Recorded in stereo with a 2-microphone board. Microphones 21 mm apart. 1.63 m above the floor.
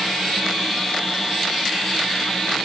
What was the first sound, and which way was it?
Only background noise.